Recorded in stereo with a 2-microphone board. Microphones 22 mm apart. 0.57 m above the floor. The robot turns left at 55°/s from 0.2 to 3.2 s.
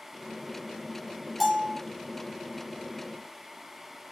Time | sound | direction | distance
1.4 | a bell | 10° right (ahead or behind) | 2.5 m